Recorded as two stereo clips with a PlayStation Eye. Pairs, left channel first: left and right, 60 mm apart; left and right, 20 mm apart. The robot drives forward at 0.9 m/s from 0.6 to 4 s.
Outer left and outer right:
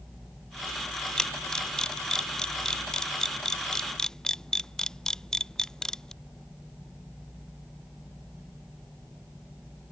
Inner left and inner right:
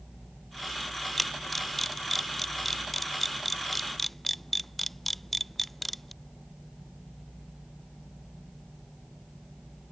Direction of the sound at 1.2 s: 10° left (ahead or behind).